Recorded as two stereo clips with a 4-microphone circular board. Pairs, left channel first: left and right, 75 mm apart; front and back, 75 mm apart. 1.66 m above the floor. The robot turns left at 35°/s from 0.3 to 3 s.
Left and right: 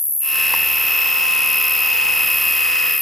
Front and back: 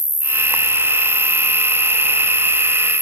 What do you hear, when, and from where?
0.0 s an insect: 75° left; by 3.0 s 20° right